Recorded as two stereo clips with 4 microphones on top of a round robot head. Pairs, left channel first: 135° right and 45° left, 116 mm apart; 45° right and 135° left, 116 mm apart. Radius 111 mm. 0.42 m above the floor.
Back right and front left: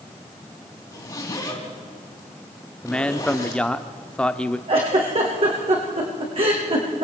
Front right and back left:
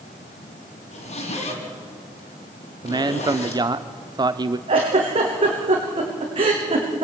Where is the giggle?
85° left, 5.5 m.